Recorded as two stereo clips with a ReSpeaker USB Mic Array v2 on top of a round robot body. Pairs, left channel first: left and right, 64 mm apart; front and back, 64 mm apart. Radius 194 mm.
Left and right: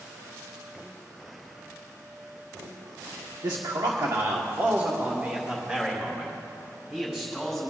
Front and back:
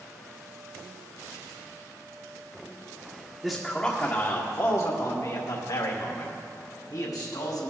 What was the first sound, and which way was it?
A man speaking, 95° right.